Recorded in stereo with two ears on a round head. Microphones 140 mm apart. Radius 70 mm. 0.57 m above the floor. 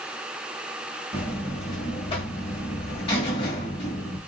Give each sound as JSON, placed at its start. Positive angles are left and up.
{"t": 1.1, "sound": "a buzzer", "side_deg": 40, "distance_m": 1.6}